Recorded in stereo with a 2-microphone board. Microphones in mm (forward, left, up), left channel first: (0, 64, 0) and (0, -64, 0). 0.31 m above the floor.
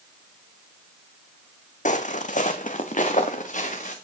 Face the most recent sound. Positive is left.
turn(degrees=70)  # may be behind; listen again after turning